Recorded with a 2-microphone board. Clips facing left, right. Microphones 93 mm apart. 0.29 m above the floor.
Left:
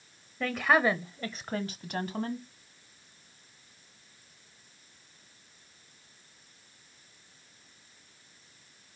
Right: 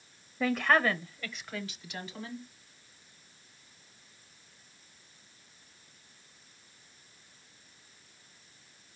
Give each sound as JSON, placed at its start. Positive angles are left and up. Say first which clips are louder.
{"t": 0.4, "sound": "a woman speaking", "louder": "left 1 dB", "side_deg": -5, "distance_m": 1.0}